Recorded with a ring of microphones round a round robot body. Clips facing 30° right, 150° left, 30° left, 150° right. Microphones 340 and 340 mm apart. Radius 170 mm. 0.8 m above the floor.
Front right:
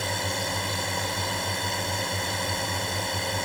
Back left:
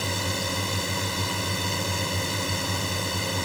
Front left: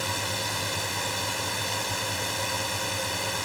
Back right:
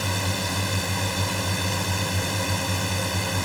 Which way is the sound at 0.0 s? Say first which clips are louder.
Back left 1 dB, back right 4 dB; 130° right.